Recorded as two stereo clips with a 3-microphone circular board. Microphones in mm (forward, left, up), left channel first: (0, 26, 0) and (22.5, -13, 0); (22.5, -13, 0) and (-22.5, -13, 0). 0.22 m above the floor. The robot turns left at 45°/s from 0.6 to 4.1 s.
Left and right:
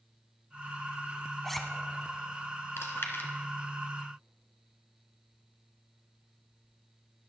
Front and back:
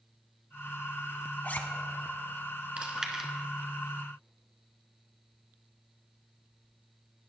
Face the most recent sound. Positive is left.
turn(degrees=60)